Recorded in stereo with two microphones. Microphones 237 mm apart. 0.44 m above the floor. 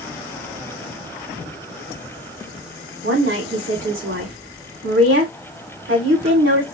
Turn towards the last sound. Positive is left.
turn(degrees=-55)  # may be behind; listen again after turning